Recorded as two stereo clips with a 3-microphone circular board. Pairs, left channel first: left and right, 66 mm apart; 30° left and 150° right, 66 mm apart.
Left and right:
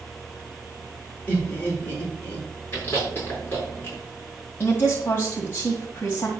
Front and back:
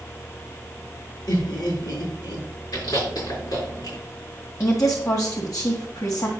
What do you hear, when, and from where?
1.3 s laughter: 30° left, 5 m
2.7 s chewing: 35° left, 5.5 m
4.6 s a woman speaking: 40° left, 1.8 m